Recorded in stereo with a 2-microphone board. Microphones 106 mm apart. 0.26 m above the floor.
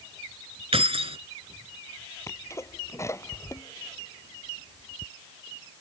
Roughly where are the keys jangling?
Right.